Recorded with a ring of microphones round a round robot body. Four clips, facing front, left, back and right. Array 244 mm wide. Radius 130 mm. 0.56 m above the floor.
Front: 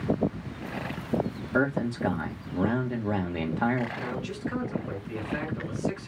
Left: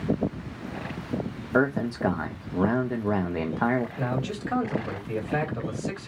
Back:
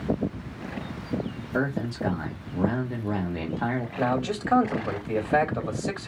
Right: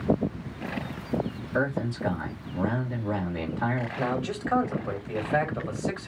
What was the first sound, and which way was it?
A man speaking, 75° left.